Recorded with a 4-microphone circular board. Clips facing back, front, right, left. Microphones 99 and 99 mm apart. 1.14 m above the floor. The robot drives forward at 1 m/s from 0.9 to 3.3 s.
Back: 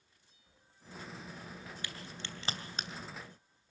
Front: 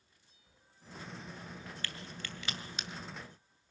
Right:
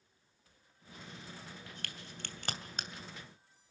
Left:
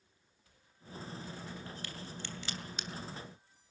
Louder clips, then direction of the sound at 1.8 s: Front 1 dB, left 4 dB; 105° right.